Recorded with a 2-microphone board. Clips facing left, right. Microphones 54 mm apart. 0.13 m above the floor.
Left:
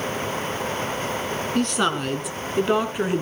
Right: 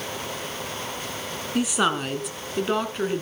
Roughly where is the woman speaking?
Centre.